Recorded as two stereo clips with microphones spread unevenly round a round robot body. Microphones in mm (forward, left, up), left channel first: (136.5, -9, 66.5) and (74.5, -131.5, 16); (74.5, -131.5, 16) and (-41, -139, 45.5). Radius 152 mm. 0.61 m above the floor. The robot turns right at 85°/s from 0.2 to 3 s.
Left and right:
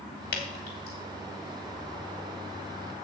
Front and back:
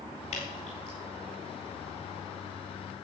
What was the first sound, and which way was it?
Dripping, 60° left.